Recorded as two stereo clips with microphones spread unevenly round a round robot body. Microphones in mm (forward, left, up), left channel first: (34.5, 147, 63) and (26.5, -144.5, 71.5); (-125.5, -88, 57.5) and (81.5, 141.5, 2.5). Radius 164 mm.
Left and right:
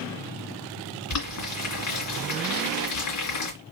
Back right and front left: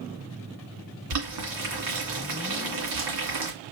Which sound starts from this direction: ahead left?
Boiling, at 1.1 s.